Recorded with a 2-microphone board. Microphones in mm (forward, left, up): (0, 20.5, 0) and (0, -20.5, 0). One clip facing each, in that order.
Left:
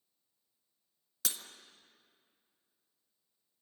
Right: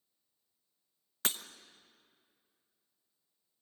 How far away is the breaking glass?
About 1.0 m.